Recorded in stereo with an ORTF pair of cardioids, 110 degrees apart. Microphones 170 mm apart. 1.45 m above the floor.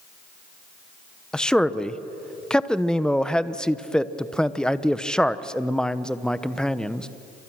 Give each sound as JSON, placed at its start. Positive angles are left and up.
{"t": 1.3, "sound": "a man speaking", "azimuth_deg": 5, "distance_m": 1.0}